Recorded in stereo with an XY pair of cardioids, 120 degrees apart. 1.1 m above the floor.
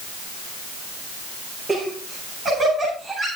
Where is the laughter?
30° right, 9 m; by 3.3 s 40° right, 7.5 m.